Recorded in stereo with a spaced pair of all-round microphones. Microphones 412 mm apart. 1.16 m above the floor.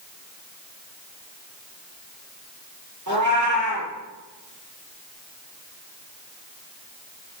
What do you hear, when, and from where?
3.1 s a cat meowing: 45° right (ahead or behind), 8 m